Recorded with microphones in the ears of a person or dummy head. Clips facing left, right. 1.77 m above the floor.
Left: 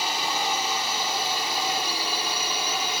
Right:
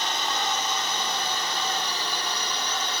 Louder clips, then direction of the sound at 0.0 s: Left 1 dB; 10° left (ahead or behind).